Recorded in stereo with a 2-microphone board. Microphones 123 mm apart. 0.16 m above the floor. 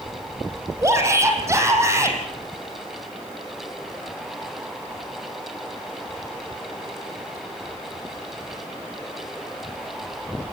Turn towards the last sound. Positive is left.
turn(degrees=-25)  # may be behind; listen again after turning